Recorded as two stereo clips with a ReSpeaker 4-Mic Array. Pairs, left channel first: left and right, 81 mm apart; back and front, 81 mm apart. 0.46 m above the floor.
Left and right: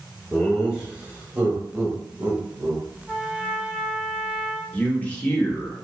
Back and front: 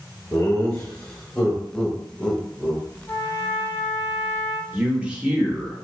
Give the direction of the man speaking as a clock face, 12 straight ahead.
10 o'clock.